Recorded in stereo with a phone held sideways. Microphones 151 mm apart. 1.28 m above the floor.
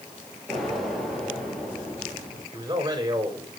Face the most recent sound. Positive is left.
turn(degrees=-25)  # may be behind; listen again after turning